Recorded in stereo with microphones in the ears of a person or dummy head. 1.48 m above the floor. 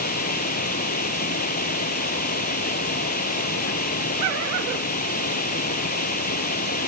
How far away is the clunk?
I don't hear a clunk.